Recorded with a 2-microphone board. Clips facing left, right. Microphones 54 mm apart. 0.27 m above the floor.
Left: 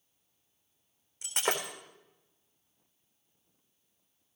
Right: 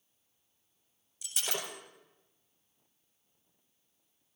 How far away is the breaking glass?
About 4 m.